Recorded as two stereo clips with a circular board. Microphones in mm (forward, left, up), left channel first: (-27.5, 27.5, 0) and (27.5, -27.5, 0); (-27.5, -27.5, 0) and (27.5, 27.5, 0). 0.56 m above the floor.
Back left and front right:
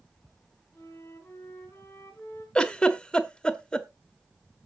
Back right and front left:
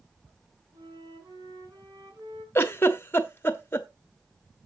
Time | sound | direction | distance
0.7 | a flute | 70° left | 4.5 m
2.5 | a giggle | 160° right | 1.1 m